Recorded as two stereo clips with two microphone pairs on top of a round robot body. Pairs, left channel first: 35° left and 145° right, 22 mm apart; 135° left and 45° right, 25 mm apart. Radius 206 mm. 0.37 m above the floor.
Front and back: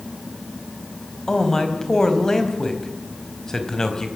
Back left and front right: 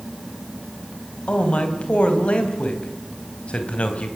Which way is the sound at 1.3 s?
100° left.